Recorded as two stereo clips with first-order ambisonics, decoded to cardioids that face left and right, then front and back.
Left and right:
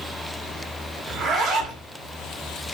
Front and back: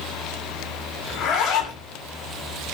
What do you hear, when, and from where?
1.1 s a zipper: 35° right, 0.7 m